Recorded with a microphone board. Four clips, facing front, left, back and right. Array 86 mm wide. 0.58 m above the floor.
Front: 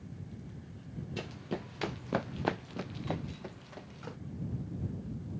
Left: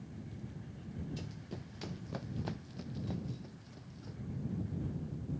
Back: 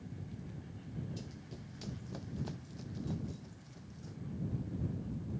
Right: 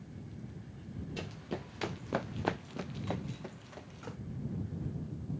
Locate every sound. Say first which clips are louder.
1.2 s running footsteps: right 6 dB, front 10 dB; 35° right; by 4.2 s 40° right